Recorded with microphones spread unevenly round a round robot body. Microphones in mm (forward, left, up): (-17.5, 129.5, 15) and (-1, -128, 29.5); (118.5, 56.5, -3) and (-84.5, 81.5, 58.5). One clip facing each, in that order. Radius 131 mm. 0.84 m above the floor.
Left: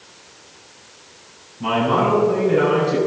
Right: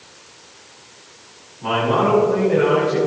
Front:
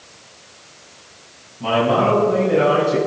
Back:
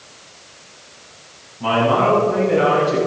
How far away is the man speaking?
About 7.5 m.